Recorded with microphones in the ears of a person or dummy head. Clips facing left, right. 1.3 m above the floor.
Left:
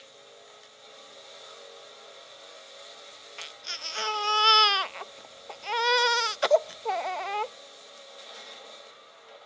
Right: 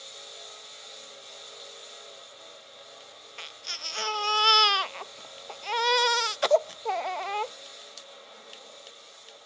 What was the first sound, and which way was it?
A baby crying, centre (ahead or behind).